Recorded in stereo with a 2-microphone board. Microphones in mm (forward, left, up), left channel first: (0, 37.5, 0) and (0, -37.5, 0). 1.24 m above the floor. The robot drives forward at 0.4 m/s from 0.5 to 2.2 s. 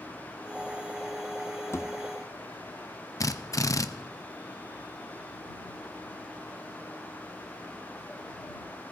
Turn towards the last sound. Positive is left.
turn(degrees=45)  # may be behind; listen again after turning